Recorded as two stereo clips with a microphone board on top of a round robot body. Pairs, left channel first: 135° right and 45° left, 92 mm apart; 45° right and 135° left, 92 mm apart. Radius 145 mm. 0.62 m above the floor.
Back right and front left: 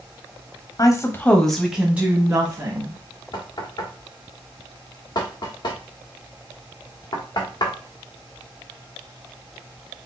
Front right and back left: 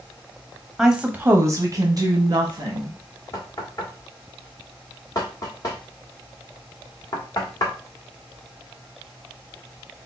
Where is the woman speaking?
145° right, 1.2 m; by 3.0 s 95° left, 2 m.